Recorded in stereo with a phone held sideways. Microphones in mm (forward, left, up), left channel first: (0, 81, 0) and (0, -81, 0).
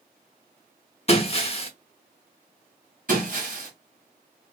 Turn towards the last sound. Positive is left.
turn(degrees=-60)  # may be behind; listen again after turning